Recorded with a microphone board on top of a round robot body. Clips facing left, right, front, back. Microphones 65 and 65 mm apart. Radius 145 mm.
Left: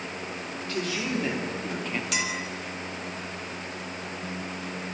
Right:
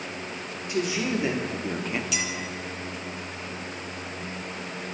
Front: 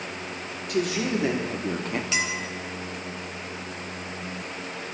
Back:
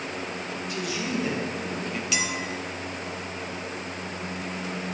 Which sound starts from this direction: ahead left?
A clink, at 2.1 s.